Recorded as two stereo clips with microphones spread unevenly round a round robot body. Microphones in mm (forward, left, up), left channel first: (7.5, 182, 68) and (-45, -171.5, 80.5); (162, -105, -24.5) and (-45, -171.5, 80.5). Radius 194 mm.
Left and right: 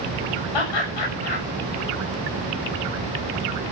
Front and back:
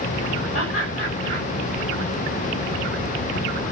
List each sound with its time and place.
0.5 s laughter: 85° left, 7.5 m